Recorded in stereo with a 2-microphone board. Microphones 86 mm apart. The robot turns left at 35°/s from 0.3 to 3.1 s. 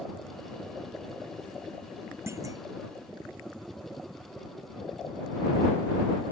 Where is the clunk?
30° right (ahead or behind); by 2.7 s 45° right (ahead or behind).